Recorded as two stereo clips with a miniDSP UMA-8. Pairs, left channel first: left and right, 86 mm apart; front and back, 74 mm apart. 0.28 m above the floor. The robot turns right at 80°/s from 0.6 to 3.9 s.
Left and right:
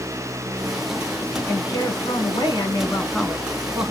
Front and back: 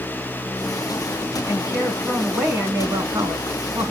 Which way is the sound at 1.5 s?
35° left.